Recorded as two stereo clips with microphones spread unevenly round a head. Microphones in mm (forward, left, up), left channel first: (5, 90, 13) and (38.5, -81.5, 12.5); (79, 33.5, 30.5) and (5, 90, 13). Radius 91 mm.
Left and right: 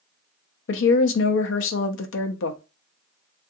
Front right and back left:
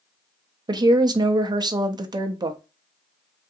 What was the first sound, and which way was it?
A woman speaking, 95° left.